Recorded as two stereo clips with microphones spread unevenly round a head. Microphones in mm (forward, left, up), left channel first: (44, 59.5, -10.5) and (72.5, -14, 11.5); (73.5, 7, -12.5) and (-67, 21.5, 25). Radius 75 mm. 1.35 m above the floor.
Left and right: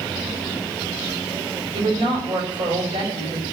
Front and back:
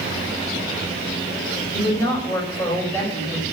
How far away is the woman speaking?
About 6 m.